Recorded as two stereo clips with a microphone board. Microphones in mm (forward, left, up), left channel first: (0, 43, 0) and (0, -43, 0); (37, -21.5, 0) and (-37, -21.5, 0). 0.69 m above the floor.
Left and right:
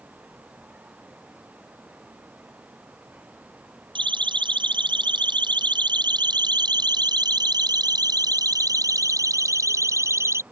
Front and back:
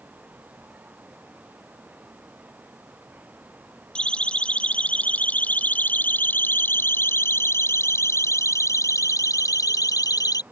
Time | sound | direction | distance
4.0 | a siren | 75° right | ?